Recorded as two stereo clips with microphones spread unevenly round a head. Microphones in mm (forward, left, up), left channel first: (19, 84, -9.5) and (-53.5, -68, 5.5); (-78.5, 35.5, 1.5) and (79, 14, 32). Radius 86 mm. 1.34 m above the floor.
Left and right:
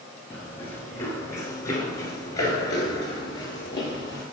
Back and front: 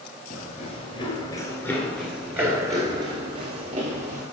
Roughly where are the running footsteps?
Behind left.